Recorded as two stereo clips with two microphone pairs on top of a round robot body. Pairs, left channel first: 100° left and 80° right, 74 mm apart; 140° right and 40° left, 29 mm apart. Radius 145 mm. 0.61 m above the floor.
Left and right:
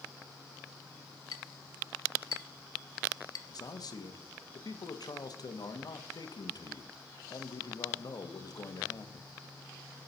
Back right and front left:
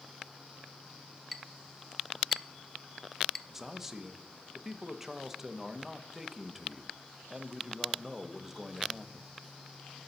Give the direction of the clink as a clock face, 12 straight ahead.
8 o'clock.